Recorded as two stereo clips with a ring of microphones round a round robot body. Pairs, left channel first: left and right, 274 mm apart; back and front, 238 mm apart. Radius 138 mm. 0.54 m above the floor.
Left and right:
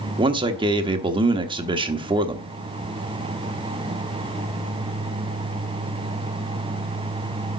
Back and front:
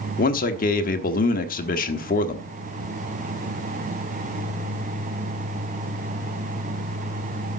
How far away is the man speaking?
About 1.1 m.